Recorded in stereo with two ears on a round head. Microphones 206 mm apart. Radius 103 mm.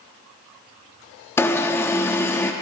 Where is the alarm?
10° left (ahead or behind), 0.6 m.